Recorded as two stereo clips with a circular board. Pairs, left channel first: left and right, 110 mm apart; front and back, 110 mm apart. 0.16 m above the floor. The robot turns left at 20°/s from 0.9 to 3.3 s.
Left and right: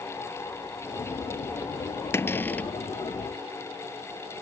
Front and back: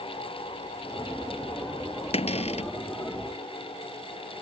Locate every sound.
2.1 s a cupboard door: 25° left; by 2.7 s 15° left